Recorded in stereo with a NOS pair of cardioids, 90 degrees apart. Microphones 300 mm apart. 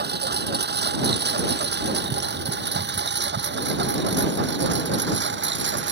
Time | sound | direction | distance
0.0 | a lawn mower | 35° right | ?